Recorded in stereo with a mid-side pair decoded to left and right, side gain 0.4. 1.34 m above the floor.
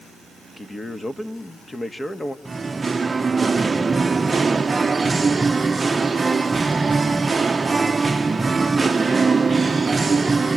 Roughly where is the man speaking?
Ahead.